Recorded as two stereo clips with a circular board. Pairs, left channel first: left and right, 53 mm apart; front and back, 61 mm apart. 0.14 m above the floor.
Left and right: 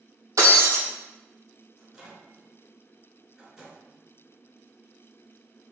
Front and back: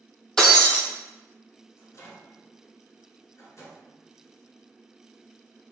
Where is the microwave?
15° right, 1.5 m.